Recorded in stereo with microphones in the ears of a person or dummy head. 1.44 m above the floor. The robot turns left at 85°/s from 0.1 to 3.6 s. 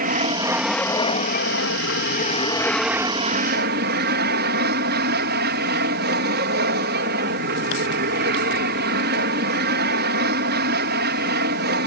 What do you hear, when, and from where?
0.0 s an aircraft: 130° right; by 11.9 s 70° right